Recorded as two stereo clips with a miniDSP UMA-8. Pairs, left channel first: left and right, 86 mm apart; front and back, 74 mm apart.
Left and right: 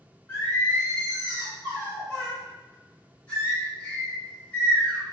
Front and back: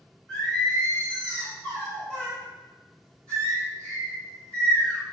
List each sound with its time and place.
0.3 s singing: 55° left, 1.2 m